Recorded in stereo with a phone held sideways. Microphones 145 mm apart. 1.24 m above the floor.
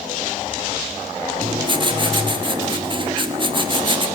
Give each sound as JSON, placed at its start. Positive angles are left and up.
{"t": 1.4, "sound": "writing", "side_deg": -35, "distance_m": 1.8}